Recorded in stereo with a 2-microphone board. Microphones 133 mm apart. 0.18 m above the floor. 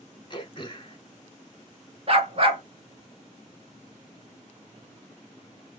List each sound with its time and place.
0.3 s throat clearing: 40° left (ahead or behind), 0.5 m
2.1 s a dog barking: 45° right (ahead or behind), 0.8 m